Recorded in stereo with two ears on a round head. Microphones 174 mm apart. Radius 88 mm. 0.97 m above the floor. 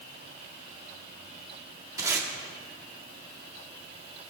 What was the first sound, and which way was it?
Tape being pulled, 20° right (ahead or behind).